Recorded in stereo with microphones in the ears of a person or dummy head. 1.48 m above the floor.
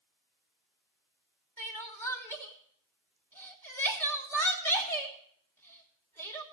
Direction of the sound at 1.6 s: 10° left (ahead or behind).